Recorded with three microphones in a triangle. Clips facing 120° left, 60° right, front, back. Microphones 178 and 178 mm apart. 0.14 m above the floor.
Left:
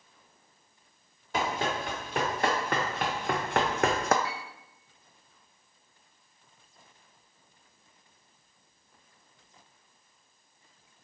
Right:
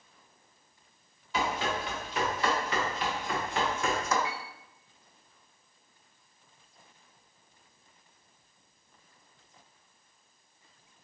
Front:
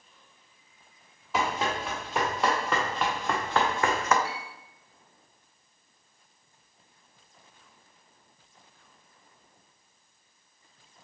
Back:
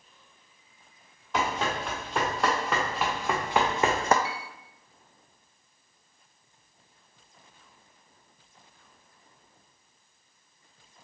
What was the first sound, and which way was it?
Running footsteps, 85° left.